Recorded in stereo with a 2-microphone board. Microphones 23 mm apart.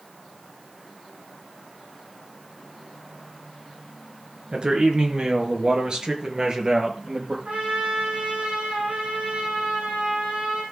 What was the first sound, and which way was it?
A man speaking, 45° right (ahead or behind).